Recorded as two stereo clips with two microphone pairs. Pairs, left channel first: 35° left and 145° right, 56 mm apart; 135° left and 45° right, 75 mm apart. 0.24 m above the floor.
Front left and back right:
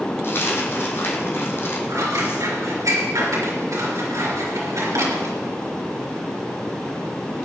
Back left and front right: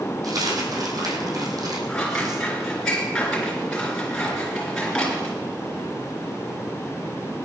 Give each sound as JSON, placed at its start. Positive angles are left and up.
{"t": 0.2, "sound": "a dropped coin", "azimuth_deg": -10, "distance_m": 2.5}
{"t": 1.9, "sound": "scissors", "azimuth_deg": -145, "distance_m": 4.0}